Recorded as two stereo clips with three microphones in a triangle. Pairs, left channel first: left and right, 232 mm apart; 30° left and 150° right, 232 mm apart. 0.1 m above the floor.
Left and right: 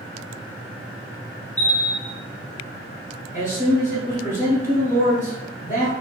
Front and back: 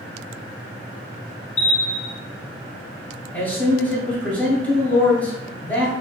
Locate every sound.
1.6 s a bell: 15° right, 1.0 m
3.3 s a man speaking: 110° left, 1.5 m